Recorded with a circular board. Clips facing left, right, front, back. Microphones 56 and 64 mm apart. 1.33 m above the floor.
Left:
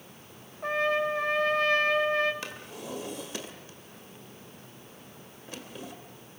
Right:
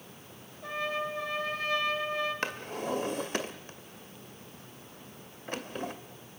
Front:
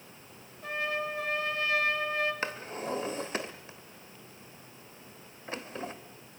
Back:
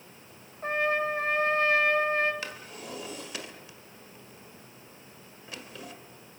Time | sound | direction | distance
0.6 | a trumpet | 125° left | 2 m
2.4 | a drawer | 55° right | 1.9 m